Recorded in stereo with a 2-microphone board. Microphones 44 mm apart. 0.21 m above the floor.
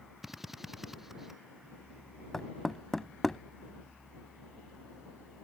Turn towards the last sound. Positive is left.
turn(degrees=5)  # may be behind; listen again after turning